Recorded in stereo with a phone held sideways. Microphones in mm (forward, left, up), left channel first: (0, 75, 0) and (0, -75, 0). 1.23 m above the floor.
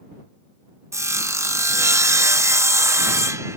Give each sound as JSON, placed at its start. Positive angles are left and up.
{"t": 0.9, "sound": "sawing", "side_deg": -20}